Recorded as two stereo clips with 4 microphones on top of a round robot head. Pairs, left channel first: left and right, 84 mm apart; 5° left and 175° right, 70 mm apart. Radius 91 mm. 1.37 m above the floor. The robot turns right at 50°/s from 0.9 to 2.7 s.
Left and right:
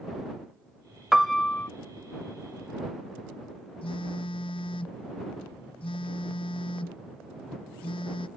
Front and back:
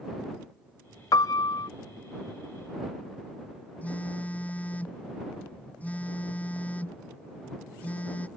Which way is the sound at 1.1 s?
5° right.